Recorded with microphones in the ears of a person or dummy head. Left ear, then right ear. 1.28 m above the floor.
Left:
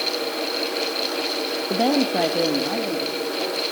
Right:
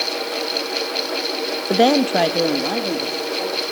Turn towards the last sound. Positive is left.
turn(degrees=-85)